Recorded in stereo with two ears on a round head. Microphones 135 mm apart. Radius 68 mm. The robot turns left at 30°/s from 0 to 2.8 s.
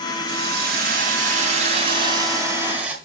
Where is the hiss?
95° right, 2.5 m; by 3.0 s 170° right, 2.5 m.